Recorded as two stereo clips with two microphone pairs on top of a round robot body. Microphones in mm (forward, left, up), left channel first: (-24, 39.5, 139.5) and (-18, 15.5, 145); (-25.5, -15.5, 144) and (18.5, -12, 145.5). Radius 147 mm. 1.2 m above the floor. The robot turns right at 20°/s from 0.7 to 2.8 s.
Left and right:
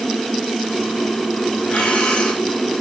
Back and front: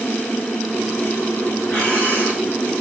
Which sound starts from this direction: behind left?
Breathing, at 1.7 s.